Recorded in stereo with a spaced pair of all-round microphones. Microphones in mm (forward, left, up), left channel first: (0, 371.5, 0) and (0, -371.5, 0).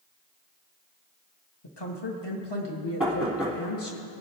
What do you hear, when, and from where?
1.6 s a woman speaking: 35° left (ahead or behind), 1.1 m
3.0 s knocking: centre (ahead or behind), 2.5 m